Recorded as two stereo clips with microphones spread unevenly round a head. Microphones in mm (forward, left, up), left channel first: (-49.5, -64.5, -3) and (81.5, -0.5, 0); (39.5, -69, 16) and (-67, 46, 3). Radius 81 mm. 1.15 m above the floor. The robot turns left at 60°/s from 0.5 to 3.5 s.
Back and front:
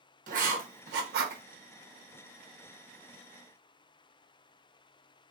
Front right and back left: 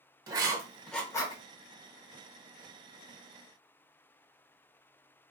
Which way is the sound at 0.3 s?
65° left.